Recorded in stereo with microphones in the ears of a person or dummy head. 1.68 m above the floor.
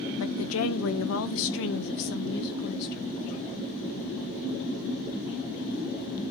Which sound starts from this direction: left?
A woman speaking, at 0.2 s.